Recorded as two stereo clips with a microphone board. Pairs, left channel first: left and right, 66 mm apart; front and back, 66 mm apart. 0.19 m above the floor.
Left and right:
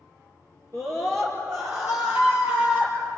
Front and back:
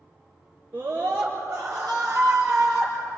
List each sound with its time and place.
0.7 s a scream: 130° right, 3 m; by 2.9 s 140° right, 5 m